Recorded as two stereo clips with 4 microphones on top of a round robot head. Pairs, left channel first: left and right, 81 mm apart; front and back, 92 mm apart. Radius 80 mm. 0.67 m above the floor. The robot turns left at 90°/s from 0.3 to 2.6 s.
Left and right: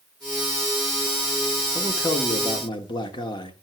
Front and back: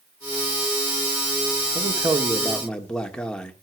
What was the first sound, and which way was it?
A man speaking, 160° left.